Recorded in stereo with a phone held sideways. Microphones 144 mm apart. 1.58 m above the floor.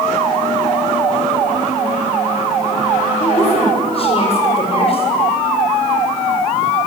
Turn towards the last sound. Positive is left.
turn(degrees=45)  # may be behind; listen again after turning